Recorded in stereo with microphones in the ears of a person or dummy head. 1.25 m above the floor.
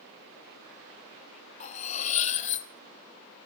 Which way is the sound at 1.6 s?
40° left (ahead or behind).